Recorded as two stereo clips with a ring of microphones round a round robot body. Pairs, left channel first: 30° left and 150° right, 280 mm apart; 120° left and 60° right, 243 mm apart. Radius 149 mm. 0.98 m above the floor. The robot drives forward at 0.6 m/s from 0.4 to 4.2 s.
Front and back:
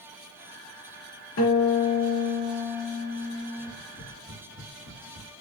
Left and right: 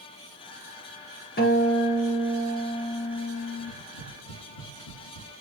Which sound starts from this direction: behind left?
Tapping, at 3.6 s.